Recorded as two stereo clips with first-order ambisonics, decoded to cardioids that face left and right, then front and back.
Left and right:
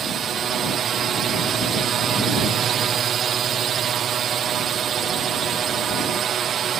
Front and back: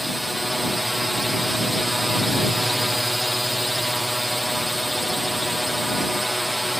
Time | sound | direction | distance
0.0 | a drone | 90° right | ?